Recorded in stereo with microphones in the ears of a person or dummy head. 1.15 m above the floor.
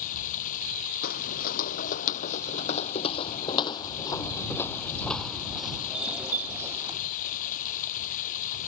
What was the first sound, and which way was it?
Running water, 45° left (ahead or behind).